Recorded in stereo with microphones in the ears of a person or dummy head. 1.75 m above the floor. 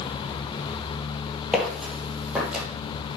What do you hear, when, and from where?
1.5 s footsteps: centre (ahead or behind), 3 m; by 2.6 s 5° right (ahead or behind), 3.5 m